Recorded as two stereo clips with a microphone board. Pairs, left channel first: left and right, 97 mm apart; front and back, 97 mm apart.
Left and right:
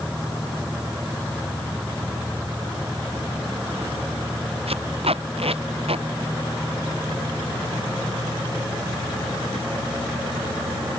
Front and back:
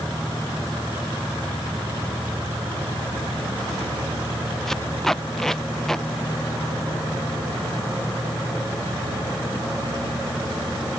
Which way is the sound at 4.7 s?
85° right.